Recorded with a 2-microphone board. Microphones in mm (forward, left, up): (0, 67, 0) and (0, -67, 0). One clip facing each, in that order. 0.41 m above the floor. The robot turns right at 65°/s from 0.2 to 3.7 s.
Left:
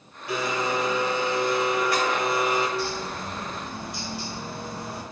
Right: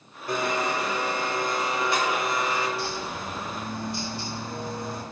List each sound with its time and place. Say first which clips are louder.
0.3 s a blender: even; 130° right, 0.6 m; by 2.7 s 25° left, 0.6 m
2.8 s a bird: left 2 dB; 100° left, 1.4 m; by 5.0 s 160° left, 1.4 m